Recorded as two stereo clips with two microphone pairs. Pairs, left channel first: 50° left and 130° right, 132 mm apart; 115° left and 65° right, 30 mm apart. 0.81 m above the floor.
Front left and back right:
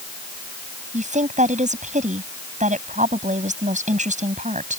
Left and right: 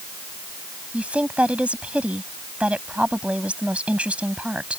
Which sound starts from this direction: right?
A woman speaking, at 0.9 s.